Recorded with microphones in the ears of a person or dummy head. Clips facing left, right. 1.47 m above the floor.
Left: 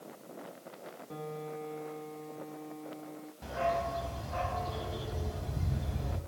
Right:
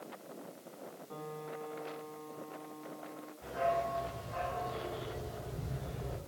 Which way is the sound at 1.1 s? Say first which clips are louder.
Left 4 dB; 35° left (ahead or behind).